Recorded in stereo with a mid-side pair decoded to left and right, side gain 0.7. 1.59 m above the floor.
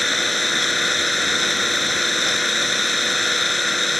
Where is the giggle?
No giggle in this recording.